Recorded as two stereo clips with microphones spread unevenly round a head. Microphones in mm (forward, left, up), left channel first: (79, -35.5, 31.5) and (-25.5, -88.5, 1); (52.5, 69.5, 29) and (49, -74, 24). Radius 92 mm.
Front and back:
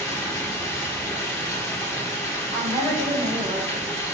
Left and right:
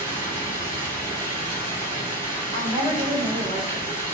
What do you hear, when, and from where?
0.0 s running water: 35° right, 1.9 m
2.5 s a woman speaking: 140° right, 1.3 m